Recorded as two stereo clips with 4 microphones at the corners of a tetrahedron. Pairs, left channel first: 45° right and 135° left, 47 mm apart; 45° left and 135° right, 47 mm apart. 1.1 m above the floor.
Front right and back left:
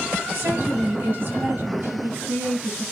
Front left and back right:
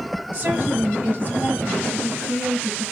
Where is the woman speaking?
160° left, 6.5 m; by 2.8 s 170° left, 8 m.